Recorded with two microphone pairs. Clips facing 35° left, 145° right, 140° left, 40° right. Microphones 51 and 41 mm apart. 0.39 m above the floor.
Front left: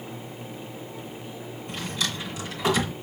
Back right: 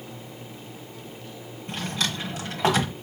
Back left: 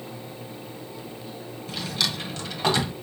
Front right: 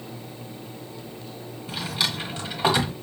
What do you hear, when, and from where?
1.7 s a drawer: 110° right, 1.3 m